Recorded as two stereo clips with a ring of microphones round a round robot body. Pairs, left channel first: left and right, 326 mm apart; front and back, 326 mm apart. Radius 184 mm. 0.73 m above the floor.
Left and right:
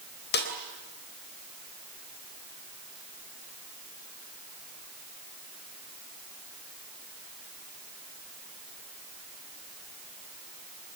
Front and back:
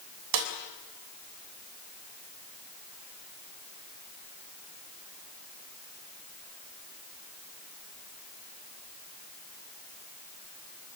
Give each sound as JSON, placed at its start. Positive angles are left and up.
{"t": 0.3, "sound": "a snare drum", "azimuth_deg": 150, "distance_m": 3.5}